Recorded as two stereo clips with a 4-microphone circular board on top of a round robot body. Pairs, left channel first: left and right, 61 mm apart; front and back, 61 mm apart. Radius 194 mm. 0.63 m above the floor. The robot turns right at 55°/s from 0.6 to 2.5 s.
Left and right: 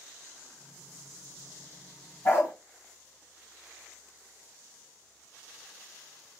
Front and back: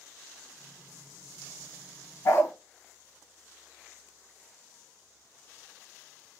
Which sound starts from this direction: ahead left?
A dog barking, at 2.2 s.